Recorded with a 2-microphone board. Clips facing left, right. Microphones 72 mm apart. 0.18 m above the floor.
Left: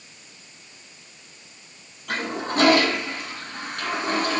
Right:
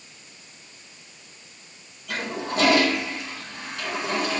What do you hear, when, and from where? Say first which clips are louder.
2.1 s a toilet flushing: left 2 dB; 55° left (ahead or behind), 1.5 m